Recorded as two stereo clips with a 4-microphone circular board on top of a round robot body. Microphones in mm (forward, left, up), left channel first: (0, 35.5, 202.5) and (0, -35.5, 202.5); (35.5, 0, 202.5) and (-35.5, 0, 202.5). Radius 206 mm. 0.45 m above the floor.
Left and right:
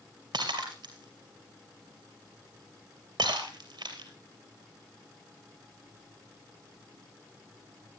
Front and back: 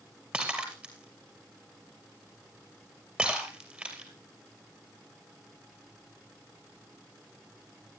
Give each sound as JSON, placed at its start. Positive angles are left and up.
{"t": 0.3, "sound": "breaking glass", "azimuth_deg": -105, "distance_m": 2.5}